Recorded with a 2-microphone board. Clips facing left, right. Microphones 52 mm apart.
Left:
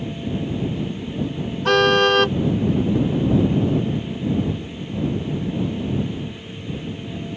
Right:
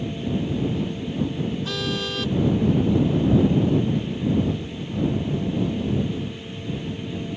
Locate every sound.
1.6 s a car horn: 60° left (ahead or behind)